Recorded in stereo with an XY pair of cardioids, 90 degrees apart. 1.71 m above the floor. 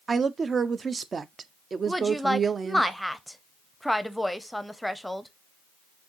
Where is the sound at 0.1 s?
45° right, 0.5 m.